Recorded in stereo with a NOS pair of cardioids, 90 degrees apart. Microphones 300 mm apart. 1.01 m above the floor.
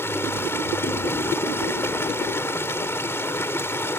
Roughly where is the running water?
Ahead.